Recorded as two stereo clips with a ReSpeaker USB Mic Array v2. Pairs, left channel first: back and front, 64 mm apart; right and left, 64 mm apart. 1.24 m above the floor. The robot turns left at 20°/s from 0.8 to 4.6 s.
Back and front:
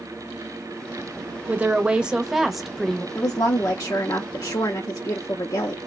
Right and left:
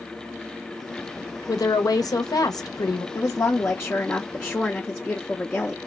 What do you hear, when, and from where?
1.5 s a woman speaking: 65° right, 0.7 m; by 3.0 s 100° right, 0.7 m
3.1 s a woman speaking: 135° right, 0.6 m; by 5.8 s 165° right, 0.6 m